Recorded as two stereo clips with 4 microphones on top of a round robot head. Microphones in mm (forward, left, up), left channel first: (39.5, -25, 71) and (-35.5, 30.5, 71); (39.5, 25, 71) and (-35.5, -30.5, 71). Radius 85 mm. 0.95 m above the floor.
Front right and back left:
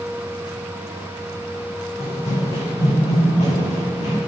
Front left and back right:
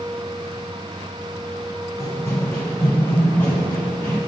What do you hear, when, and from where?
2.0 s running footsteps: 25° right, 4 m